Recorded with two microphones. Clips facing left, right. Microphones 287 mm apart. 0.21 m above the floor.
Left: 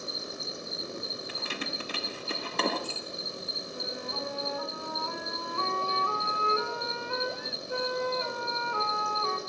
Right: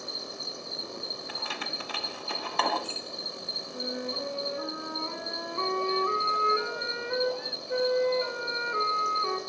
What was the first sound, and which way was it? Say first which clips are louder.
An insect: left 1 dB; 20° left (ahead or behind).